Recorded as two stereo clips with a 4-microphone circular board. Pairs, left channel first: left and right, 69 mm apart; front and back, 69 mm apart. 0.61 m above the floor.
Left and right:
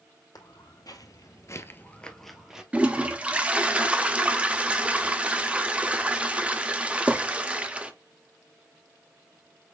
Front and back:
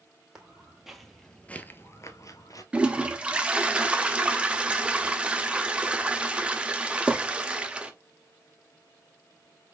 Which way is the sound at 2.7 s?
135° right.